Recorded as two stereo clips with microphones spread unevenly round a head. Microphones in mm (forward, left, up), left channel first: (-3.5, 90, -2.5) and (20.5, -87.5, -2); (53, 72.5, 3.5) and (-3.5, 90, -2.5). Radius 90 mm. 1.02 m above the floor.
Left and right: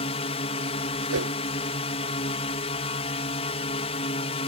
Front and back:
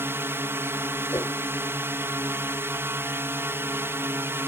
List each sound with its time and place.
0.0 s a drone: 140° left
1.1 s a whoosh: 85° right